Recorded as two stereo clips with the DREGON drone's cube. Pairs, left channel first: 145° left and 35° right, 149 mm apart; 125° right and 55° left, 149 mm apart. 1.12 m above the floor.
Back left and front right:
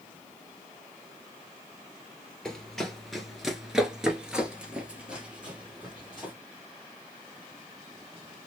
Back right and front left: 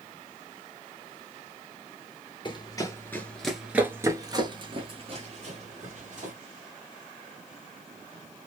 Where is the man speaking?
No man speaking in this recording.